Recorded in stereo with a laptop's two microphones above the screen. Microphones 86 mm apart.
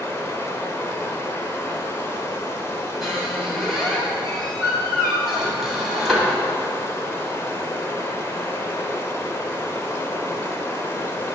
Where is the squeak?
5° right (ahead or behind), 2 m.